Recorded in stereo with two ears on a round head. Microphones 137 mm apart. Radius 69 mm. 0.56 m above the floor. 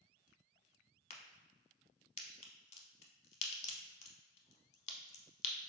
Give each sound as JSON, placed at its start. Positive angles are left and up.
{"t": 1.1, "sound": "a crack", "side_deg": 40, "distance_m": 0.6}